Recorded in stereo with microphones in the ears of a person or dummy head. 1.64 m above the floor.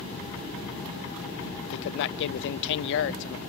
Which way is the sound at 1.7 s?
65° left (ahead or behind).